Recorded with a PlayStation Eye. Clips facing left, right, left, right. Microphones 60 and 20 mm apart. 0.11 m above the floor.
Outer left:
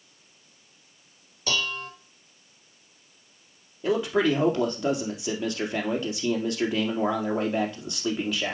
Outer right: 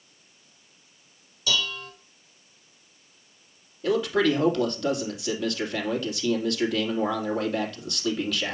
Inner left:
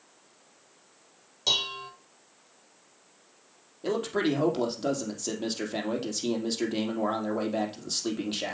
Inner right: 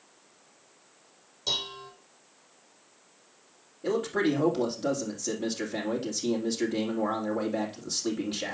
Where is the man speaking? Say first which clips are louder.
Outer right 1 dB, inner right 1 dB; 20° left (ahead or behind), 3 m.